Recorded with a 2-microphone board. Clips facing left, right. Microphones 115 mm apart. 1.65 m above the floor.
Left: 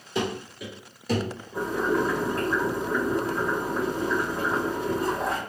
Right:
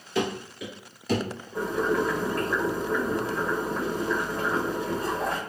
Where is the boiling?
15° left (ahead or behind), 1.9 m.